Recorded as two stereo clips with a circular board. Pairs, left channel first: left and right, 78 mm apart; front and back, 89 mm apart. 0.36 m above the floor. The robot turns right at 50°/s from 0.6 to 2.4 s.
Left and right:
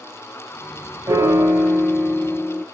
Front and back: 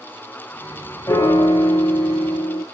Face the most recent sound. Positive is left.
turn(degrees=15)